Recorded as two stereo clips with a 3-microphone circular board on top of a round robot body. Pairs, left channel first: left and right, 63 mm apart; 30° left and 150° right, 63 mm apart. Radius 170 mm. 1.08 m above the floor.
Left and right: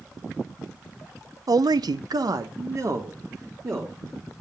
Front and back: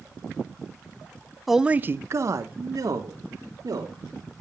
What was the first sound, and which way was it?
A man speaking, 60° right.